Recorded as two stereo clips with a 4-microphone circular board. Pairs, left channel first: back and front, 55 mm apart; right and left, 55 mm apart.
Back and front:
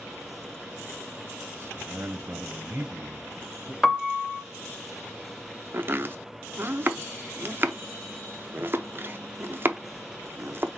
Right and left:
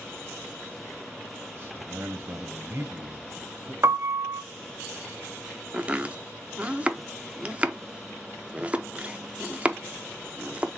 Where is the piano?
100° left, 0.7 m.